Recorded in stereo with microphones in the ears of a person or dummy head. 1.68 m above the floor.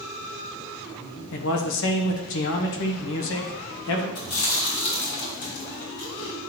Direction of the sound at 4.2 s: 70° left (ahead or behind).